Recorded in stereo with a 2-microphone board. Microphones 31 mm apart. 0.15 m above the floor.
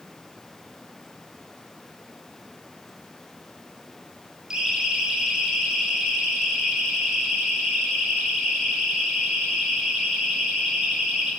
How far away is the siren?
About 8.5 m.